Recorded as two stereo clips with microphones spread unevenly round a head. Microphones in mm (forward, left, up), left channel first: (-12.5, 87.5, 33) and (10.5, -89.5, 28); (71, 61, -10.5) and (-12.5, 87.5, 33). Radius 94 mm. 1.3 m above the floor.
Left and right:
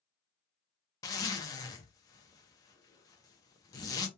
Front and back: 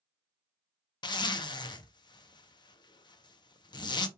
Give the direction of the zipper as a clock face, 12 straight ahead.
11 o'clock.